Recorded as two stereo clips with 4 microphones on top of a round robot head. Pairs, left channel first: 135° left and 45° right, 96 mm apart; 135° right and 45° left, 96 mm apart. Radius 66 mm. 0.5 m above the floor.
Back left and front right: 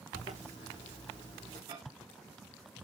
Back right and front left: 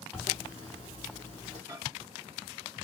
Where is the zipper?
85° left, 3 m.